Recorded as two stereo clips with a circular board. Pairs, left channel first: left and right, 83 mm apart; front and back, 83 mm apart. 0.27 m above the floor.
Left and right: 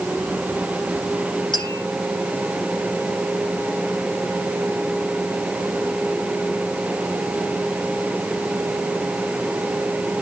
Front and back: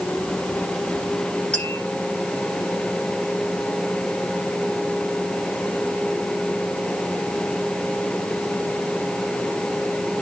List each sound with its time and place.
1.5 s tapping: 75° left, 8.5 m